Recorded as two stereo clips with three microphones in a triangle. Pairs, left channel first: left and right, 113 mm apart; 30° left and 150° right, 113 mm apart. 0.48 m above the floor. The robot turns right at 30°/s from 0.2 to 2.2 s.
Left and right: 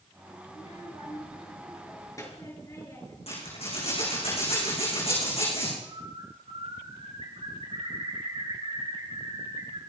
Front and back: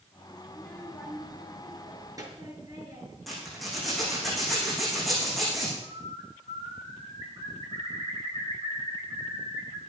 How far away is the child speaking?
About 5.5 m.